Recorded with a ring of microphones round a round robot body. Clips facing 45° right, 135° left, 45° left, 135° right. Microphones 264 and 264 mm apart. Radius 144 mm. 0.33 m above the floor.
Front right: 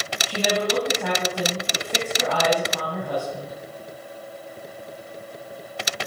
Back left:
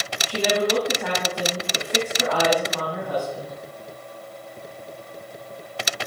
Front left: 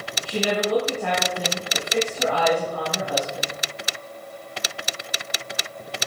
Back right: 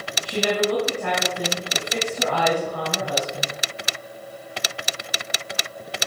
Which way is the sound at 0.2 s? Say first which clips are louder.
Back left 2 dB, back right 1 dB; 100° right.